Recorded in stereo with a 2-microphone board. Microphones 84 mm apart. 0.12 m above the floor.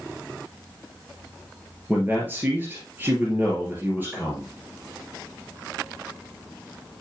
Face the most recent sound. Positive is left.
turn(degrees=-25)  # may be behind; listen again after turning